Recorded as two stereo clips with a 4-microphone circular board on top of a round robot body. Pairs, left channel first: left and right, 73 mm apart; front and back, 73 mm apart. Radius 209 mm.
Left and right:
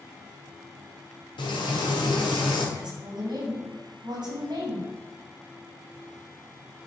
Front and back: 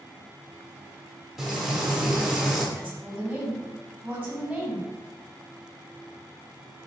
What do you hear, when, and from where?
1.4 s frying: 90° left, 1.1 m
2.8 s a woman speaking: 100° right, 2.5 m